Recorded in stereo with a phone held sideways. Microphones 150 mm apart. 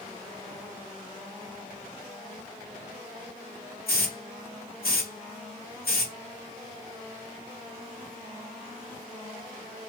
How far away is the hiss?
About 1.1 m.